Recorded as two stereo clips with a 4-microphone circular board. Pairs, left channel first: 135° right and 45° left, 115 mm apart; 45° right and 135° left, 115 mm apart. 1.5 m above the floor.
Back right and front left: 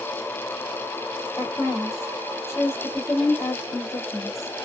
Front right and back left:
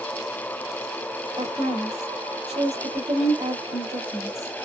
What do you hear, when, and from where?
1.4 s a woman speaking: 165° left, 2.5 m